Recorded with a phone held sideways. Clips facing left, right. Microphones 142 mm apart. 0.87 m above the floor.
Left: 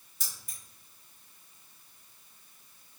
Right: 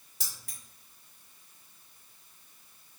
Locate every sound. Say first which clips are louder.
0.2 s keys jangling: even; 70° right (ahead or behind), 1.4 m